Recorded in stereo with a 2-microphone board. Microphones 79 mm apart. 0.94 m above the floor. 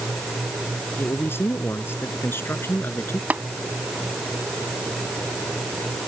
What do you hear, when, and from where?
1.0 s a man speaking: 30° left (ahead or behind)
3.3 s tapping: 20° right (ahead or behind)